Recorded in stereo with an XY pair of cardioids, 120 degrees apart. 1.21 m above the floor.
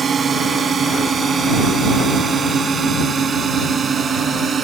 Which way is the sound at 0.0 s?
30° right.